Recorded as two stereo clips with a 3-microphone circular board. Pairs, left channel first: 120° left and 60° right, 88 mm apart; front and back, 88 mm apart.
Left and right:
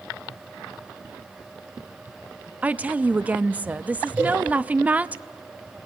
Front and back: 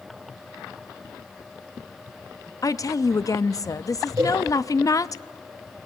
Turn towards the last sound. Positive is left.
turn(degrees=-130)